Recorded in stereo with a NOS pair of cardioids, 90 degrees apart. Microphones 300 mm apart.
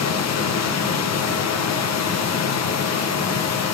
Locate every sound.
0.0 s a machine running: 60° left, 1.3 m